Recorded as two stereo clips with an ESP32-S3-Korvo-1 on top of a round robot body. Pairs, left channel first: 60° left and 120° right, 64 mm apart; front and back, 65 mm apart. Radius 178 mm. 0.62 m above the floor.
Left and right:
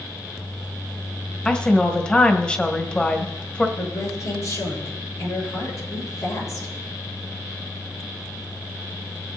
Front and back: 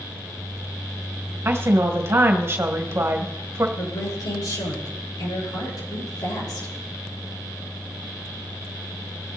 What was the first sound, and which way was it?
A woman speaking, 130° left.